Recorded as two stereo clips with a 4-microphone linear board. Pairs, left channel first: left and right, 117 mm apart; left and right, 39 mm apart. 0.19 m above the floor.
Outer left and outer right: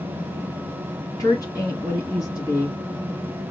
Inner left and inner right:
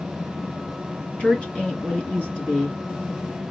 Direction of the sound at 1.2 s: 30° left (ahead or behind).